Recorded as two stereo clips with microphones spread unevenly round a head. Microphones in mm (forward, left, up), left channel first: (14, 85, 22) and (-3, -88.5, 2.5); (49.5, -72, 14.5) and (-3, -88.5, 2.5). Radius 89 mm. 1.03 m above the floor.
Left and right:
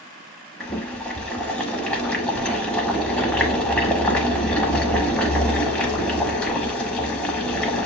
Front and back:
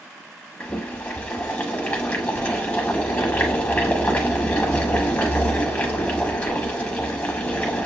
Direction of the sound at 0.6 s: 15° left.